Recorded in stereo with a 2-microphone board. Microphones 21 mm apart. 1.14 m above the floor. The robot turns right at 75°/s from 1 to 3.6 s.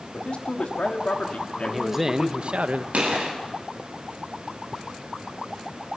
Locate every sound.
0.1 s a man speaking: 65° left, 2.5 m; by 2.6 s 175° right, 2.5 m
1.6 s a man speaking: 170° left, 0.9 m; by 2.8 s 100° right, 0.9 m
2.9 s a gunshot: 70° right (ahead or behind), 5.5 m; by 3.3 s 80° right, 5.5 m